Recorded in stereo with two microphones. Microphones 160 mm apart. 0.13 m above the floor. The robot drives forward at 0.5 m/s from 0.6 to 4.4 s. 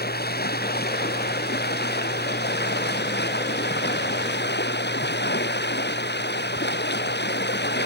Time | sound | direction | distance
0.0 | running water | 70° left (ahead or behind) | ?